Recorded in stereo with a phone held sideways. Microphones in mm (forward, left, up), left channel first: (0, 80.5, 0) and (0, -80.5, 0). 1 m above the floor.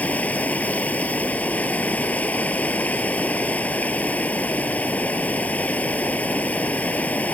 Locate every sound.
0.0 s running water: 10° left (ahead or behind)